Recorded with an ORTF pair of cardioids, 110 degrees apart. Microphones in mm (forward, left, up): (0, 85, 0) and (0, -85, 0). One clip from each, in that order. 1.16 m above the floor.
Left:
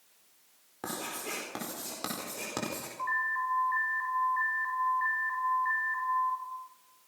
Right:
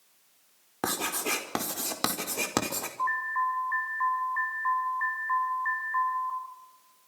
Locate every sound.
0.8 s writing: 55° right, 4.5 m
3.0 s an alarm: 30° right, 7.5 m